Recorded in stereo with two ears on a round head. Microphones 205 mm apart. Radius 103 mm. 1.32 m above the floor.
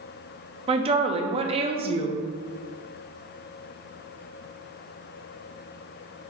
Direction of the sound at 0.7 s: 25° right (ahead or behind).